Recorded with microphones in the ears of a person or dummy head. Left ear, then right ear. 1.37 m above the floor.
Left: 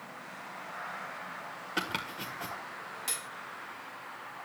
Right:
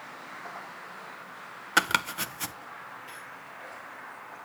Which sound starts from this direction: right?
Chopping, at 1.8 s.